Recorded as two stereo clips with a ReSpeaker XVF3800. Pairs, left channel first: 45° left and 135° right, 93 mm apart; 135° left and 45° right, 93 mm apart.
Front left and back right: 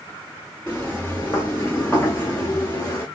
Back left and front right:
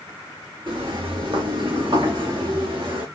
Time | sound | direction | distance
0.7 | footsteps | 30° right | 6 m